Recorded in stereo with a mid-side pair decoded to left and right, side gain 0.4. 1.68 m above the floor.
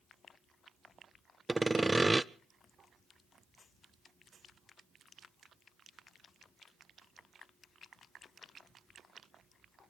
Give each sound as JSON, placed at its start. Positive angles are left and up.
{"t": 1.5, "sound": "sawing", "azimuth_deg": -15, "distance_m": 0.6}